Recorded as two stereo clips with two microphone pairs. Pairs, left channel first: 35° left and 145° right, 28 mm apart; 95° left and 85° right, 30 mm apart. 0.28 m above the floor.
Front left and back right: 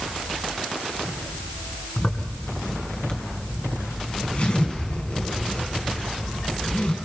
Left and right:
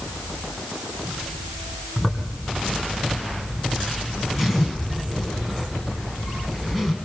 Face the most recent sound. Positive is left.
turn(degrees=0)